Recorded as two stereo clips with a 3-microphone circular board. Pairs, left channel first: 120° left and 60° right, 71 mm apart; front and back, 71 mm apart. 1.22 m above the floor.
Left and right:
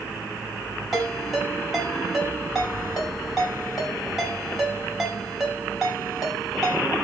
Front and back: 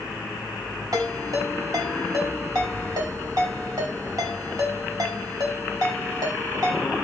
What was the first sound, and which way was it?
A ringtone, 145° right.